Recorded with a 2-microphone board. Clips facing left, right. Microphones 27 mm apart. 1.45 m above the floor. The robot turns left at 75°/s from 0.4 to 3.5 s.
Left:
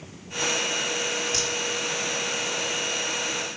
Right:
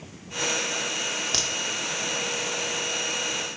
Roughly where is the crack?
Right.